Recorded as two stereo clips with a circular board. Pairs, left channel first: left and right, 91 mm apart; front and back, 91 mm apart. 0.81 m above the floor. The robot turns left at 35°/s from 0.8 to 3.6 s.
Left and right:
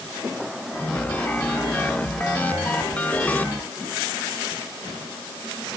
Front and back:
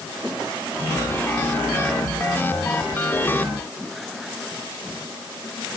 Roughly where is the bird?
I don't hear a bird.